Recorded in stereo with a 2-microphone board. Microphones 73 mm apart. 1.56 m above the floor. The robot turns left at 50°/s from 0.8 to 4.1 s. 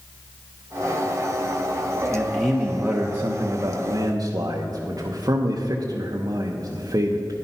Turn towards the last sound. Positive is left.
turn(degrees=-90)